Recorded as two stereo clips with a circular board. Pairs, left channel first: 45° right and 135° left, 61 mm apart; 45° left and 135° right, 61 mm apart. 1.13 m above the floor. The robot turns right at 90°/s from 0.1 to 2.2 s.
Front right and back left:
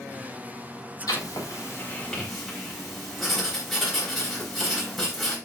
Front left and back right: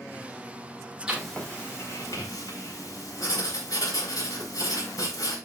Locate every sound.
1.1 s writing: 60° right, 5 m; by 5.4 s 45° left, 5 m